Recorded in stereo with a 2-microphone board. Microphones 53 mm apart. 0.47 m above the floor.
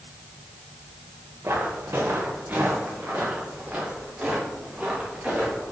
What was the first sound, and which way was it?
Footsteps, 50° right (ahead or behind).